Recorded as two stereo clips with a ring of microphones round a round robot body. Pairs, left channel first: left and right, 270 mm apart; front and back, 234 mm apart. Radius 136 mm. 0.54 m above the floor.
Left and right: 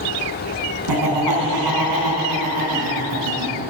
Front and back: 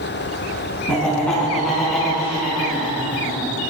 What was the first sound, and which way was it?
Laughter, 85° right.